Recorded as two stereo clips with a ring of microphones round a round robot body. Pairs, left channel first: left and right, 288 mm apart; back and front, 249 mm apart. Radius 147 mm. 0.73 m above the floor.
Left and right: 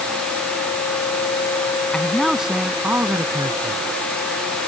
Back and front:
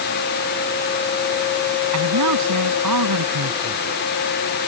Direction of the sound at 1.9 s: 5° left.